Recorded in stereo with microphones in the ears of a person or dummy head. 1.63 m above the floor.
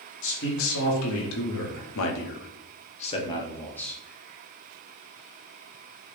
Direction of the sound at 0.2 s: 75° left (ahead or behind).